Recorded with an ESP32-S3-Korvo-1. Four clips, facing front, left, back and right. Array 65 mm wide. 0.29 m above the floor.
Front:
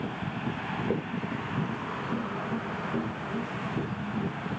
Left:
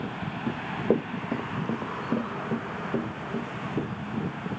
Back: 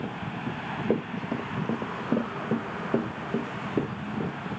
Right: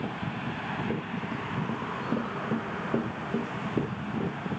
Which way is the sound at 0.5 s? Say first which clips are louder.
Left 8 dB, back 3 dB; 90° left.